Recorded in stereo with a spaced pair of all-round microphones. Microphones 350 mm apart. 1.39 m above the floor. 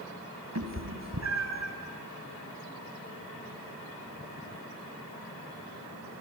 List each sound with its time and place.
0.6 s a cat meowing: 45° right (ahead or behind), 1.9 m